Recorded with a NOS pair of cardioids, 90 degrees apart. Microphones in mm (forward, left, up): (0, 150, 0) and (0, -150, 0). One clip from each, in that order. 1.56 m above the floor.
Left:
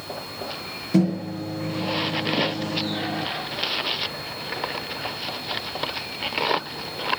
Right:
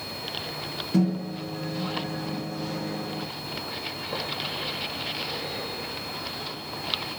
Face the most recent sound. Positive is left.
turn(degrees=25)